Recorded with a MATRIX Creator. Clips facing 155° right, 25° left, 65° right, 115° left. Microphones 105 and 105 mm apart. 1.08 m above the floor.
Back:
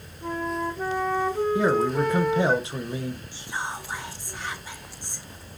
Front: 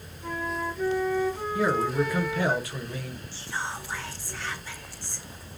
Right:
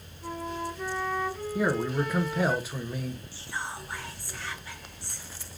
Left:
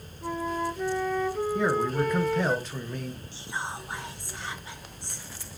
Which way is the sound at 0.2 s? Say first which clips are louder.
Back 3 dB, left 4 dB; 150° left.